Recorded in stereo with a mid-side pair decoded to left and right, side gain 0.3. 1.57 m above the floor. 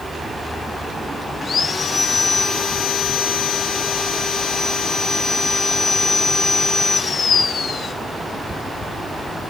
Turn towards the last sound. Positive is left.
turn(degrees=65)